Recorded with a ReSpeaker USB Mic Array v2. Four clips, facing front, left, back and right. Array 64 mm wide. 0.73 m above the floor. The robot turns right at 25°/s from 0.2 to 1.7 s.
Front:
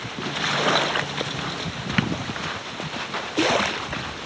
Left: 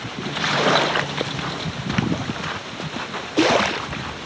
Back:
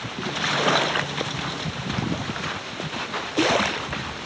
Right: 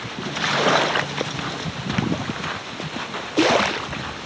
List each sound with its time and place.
2.0 s tapping: 5° left